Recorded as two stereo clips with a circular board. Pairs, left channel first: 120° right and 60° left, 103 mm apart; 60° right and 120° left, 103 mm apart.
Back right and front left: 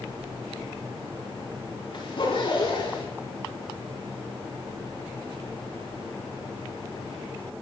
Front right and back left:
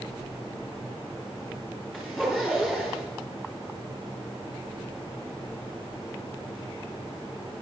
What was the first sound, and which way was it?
A zipper, 155° right.